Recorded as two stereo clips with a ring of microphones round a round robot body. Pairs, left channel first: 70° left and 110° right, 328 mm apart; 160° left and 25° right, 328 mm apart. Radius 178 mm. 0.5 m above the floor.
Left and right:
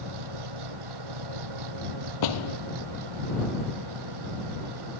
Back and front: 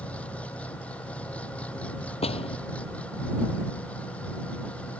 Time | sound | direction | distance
0.0 | an engine running | 115° right | ?
2.2 | a door slam | 85° left | ?